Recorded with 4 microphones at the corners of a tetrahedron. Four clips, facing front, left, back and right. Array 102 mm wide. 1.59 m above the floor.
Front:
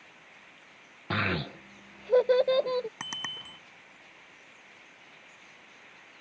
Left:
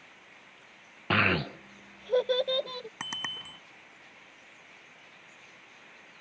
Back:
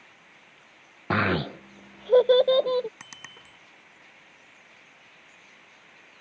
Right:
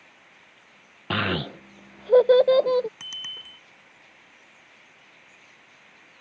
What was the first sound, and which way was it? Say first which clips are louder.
A child speaking: even, back 6 dB; 170° right.